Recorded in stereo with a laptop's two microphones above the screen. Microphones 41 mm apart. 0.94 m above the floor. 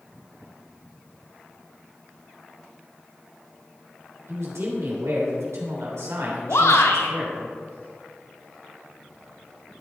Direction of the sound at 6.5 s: 85° left.